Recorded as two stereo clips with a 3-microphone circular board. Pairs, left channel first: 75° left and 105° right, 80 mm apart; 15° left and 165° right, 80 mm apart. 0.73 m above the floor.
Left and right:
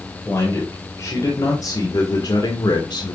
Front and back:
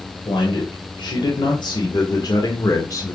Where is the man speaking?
20° left, 2.5 m; by 3.1 s 60° left, 1.6 m.